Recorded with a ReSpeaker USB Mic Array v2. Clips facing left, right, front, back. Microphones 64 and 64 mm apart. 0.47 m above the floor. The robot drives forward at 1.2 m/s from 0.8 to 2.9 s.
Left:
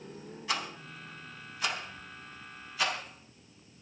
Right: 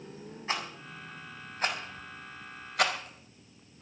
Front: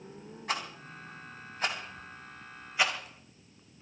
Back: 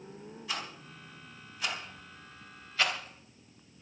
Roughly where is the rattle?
Ahead right.